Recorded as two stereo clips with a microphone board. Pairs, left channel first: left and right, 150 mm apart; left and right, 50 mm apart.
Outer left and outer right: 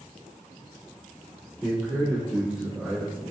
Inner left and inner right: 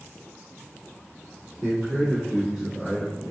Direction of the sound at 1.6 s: 5° right (ahead or behind).